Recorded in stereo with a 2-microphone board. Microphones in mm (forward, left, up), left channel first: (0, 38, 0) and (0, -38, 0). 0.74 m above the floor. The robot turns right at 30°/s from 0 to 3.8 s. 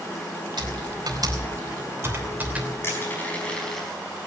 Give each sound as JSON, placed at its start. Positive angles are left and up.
{"t": 0.6, "sound": "typing on a keyboard", "side_deg": -70, "distance_m": 3.0}
{"t": 2.8, "sound": "crushing", "side_deg": 30, "distance_m": 4.5}